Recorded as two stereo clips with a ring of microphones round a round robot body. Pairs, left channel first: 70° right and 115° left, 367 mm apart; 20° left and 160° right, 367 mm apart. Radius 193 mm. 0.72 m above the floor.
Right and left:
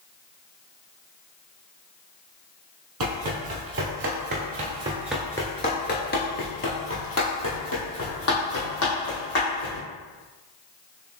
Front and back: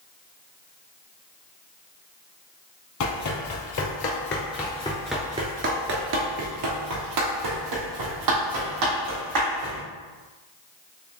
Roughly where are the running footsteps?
Ahead left.